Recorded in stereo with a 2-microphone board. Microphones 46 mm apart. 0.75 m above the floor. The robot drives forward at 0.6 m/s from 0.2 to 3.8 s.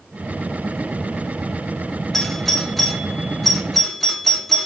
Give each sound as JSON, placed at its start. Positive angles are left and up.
{"t": 2.1, "sound": "a doorbell", "side_deg": 5, "distance_m": 0.9}